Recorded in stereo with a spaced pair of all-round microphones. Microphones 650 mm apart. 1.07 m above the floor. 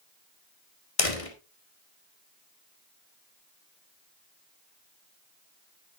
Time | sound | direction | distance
1.0 | a door slam | 55° left (ahead or behind) | 1.9 m